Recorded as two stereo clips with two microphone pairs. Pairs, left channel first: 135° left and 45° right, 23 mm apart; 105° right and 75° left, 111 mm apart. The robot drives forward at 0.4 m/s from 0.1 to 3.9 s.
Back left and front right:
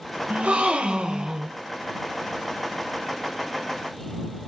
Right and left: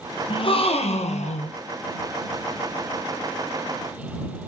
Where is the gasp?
60° right, 0.6 m; by 1.6 s 110° right, 0.6 m.